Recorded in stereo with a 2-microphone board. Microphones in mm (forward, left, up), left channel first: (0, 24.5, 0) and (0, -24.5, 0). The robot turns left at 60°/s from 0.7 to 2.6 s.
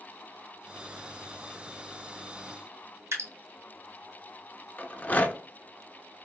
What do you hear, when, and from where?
3.1 s dripping: 70° right (ahead or behind), 2 m
4.8 s a rattle: 30° left (ahead or behind), 0.5 m